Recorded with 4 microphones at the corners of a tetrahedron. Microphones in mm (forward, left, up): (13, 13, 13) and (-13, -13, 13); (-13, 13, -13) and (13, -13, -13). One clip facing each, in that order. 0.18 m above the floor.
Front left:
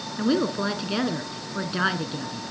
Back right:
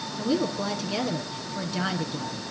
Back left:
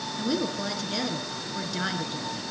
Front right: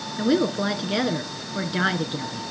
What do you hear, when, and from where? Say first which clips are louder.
0.2 s a woman speaking: front left 3 dB, front right 8 dB; straight ahead, 2.0 m